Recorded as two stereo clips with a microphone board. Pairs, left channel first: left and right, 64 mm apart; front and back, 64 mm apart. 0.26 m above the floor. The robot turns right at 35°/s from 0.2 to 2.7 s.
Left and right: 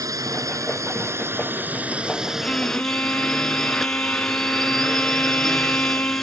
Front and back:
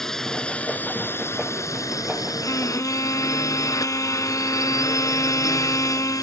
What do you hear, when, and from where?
0.0 s a drone: 85° right; by 6.2 s 5° left
2.4 s a violin: 20° left; by 6.2 s 30° left